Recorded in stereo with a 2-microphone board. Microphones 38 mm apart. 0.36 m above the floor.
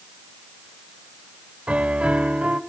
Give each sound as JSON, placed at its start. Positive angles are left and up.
{"t": 1.7, "sound": "a piano", "side_deg": -35, "distance_m": 0.9}